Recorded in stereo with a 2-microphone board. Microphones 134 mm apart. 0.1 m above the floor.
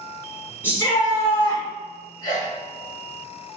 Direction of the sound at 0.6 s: 15° left (ahead or behind).